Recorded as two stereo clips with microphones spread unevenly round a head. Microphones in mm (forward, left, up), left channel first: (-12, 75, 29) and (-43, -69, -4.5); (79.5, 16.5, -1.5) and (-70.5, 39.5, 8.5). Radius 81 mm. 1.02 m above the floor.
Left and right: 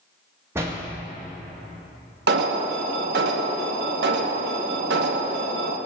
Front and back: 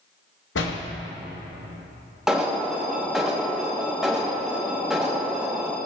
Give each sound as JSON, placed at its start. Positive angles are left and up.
{"t": 0.6, "sound": "a door slam", "azimuth_deg": -25, "distance_m": 1.2}
{"t": 2.3, "sound": "an alarm", "azimuth_deg": -100, "distance_m": 0.9}